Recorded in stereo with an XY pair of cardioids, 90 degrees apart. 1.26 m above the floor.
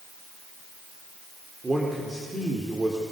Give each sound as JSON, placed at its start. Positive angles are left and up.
{"t": 1.6, "sound": "a man speaking", "azimuth_deg": -20, "distance_m": 4.0}